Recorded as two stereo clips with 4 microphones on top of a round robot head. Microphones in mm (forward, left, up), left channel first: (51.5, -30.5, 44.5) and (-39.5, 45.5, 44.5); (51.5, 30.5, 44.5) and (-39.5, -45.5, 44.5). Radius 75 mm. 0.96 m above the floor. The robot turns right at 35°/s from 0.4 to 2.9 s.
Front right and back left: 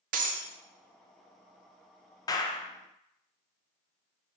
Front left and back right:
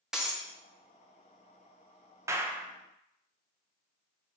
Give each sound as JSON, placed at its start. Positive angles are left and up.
{"t": 0.1, "sound": "breaking glass", "azimuth_deg": 135, "distance_m": 0.5}
{"t": 2.3, "sound": "a clap", "azimuth_deg": -85, "distance_m": 0.5}